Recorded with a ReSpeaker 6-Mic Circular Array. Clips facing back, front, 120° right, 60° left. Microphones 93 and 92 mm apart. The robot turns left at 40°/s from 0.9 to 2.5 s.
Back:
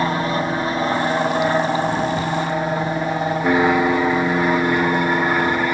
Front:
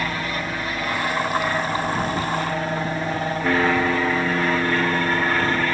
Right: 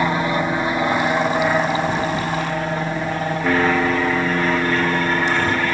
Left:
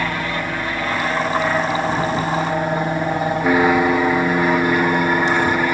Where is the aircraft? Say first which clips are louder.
Back 7 dB, right 4 dB; 170° right; by 5.7 s 125° left.